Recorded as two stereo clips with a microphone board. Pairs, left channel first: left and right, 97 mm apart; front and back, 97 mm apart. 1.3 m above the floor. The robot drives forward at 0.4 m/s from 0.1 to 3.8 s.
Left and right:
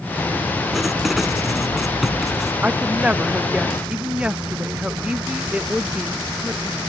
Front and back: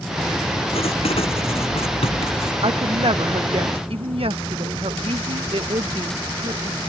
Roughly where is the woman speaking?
Behind.